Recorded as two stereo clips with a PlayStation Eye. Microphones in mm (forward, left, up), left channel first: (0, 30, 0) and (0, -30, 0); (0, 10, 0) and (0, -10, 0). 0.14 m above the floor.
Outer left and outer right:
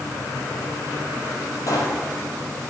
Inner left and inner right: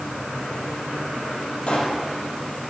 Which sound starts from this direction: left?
A pop, at 1.7 s.